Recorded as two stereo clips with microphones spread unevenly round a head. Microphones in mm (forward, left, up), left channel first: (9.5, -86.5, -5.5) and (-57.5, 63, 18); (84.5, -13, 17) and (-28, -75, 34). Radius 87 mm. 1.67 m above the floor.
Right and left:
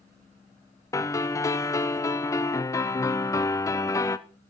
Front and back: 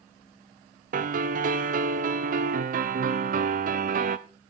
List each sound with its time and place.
0.9 s a piano: 140° right, 0.7 m